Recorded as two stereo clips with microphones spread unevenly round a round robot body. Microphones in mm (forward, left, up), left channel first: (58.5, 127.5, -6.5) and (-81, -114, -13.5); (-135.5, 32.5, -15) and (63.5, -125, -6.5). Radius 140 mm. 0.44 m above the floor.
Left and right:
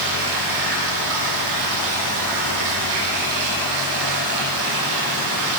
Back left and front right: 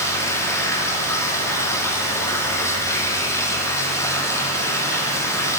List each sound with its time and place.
0.0 s running water: 140° right, 7.5 m